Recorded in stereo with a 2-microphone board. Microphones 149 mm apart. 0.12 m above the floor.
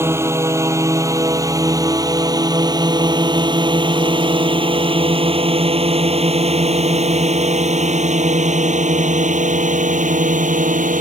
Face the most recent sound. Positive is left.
turn(degrees=-60)  # may be behind; listen again after turning